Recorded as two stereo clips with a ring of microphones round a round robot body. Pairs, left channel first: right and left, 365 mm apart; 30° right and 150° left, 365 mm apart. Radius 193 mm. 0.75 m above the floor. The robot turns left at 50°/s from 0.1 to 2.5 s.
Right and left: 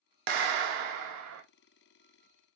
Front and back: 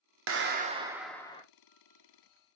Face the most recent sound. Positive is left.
turn(degrees=-10)